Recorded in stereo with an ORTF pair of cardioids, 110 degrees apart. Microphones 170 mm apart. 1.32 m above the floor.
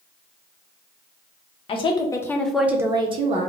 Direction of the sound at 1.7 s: 35° left.